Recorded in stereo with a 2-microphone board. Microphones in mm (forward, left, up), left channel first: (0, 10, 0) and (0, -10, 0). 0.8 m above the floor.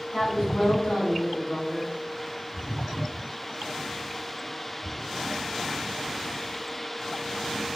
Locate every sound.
0.1 s a woman speaking: 80° left, 4 m